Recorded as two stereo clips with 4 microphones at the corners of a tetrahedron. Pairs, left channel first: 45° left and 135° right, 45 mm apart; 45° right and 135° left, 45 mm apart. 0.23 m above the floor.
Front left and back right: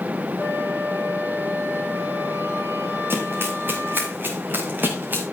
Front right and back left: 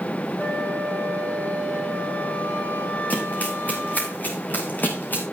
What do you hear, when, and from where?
0.4 s a flute: 100° right, 9 m
3.1 s running footsteps: 100° right, 7 m; by 5.2 s 95° right, 5.5 m